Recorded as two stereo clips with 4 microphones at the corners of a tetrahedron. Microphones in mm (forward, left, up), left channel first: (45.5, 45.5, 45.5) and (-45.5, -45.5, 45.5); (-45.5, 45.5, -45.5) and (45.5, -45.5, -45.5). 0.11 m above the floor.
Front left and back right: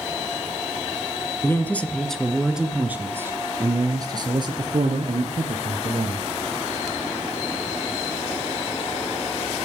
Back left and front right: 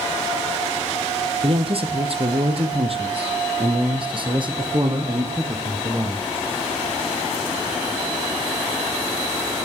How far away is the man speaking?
About 2.5 m.